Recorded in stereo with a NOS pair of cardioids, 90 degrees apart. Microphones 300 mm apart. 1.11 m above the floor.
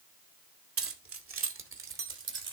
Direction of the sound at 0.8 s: 45° right.